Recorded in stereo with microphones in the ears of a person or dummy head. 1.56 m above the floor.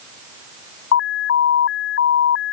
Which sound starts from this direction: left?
An alarm, at 0.9 s.